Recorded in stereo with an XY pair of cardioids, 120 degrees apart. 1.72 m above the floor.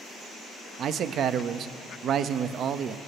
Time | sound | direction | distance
0.8 | a man speaking | 55° right | 0.6 m